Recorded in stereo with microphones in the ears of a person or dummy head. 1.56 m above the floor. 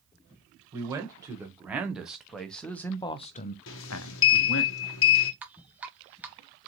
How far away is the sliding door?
About 0.8 m.